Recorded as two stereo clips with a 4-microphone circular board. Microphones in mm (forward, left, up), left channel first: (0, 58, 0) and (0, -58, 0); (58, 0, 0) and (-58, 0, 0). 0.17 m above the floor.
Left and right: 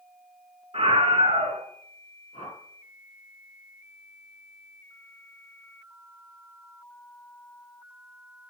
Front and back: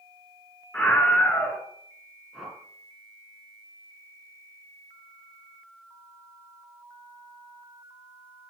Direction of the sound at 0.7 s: 75° right.